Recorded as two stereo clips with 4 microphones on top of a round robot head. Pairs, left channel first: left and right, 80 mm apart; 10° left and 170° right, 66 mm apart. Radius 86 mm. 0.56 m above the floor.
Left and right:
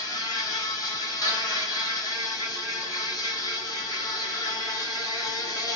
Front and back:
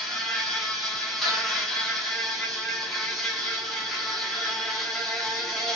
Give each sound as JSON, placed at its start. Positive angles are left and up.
{"t": 0.0, "sound": "an insect", "azimuth_deg": 95, "distance_m": 1.2}